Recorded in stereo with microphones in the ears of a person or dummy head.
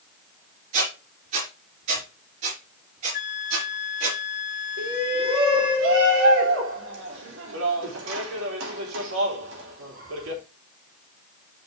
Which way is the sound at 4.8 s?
85° right.